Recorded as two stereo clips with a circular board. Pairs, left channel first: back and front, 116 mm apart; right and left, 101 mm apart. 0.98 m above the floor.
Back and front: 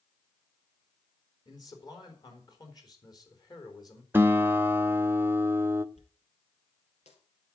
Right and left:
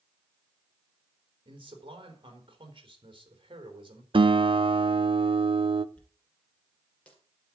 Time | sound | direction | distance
1.4 | a man speaking | 125° left | 4 m
4.1 | a guitar | 70° left | 0.7 m
6.0 | a dropped coin | 170° right | 3 m